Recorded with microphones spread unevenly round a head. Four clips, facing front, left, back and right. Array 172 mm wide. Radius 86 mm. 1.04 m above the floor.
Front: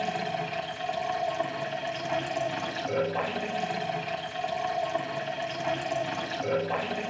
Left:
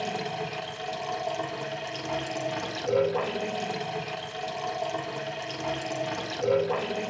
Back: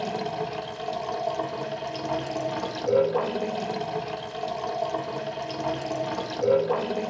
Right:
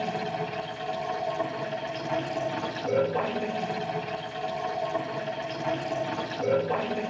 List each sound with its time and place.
0.0 s running water: 175° left, 3.5 m